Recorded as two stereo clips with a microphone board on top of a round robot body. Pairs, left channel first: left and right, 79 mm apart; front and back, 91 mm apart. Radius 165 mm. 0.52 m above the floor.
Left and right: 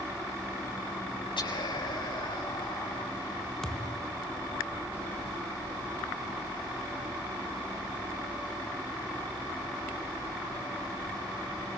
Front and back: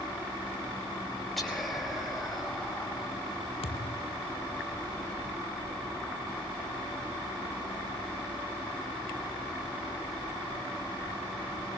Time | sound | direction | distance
1.4 | whispering | 90° left | 5 m
3.6 | a thud | 5° left | 1.3 m